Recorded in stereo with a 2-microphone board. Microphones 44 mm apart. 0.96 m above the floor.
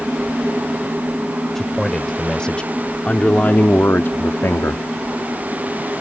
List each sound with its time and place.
1.6 s a man speaking: 10° left (ahead or behind); by 4.8 s 75° left (ahead or behind)